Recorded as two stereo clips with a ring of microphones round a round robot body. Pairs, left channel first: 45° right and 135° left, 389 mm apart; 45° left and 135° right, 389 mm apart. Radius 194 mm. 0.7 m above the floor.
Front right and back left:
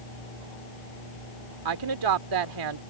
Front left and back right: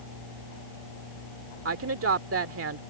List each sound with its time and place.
1.6 s a woman speaking: 170° left